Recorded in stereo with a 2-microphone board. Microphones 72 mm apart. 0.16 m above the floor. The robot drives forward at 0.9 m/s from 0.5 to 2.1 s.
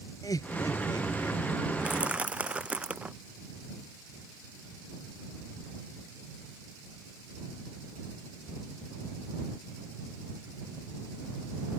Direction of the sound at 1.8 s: 15° right (ahead or behind).